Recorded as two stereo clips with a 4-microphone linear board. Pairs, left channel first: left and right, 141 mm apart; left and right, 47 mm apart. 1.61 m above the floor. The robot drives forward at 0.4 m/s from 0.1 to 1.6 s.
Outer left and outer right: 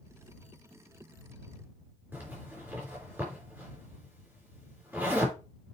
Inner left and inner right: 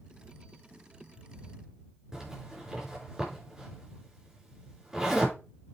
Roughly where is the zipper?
Centre.